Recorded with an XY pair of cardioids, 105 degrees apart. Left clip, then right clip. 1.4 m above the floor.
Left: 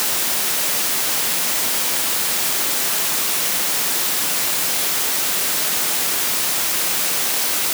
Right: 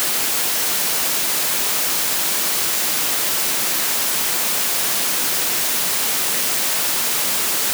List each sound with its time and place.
Only background noise.